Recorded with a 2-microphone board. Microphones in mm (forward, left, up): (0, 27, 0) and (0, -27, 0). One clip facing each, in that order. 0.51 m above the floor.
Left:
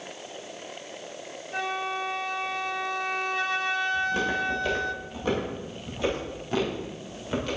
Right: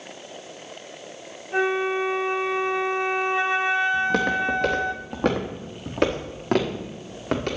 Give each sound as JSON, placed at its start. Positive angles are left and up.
{"t": 1.5, "sound": "a flute", "side_deg": -25, "distance_m": 0.6}
{"t": 3.9, "sound": "footsteps", "side_deg": -70, "distance_m": 3.5}